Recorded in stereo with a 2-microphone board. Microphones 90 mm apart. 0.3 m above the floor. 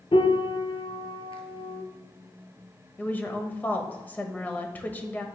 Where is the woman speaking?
20° left (ahead or behind), 1.0 m.